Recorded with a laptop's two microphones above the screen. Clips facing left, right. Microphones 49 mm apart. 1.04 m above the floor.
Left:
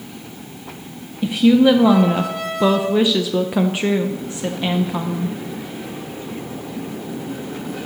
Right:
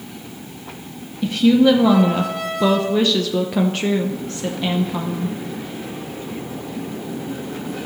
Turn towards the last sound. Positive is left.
turn(degrees=15)  # may be behind; listen again after turning